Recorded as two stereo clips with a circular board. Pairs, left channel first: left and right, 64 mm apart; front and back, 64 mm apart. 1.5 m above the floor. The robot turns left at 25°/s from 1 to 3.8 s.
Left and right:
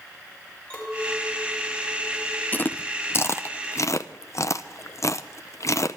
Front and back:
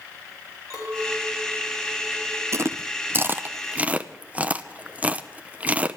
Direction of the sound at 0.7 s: 155° left.